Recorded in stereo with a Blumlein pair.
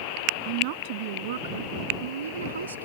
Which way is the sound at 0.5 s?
45° right.